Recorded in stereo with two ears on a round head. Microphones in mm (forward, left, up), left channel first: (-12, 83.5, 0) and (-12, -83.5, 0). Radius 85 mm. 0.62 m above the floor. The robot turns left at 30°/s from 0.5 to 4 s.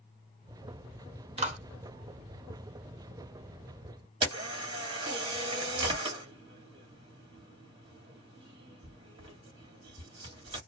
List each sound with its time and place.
1.4 s a clap: 35° right (ahead or behind), 0.9 m
4.2 s a camera shutter: 30° right (ahead or behind), 1.4 m